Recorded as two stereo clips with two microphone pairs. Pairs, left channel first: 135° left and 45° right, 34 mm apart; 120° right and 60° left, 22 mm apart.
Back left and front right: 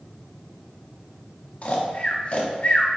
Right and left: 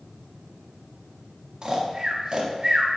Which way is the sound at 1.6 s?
100° left.